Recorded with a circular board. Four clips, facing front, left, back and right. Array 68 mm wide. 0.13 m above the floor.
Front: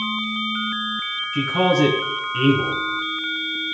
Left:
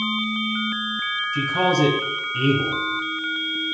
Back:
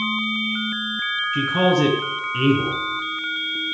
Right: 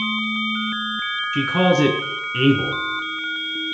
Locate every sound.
1.3 s a man speaking: 100° right, 1.6 m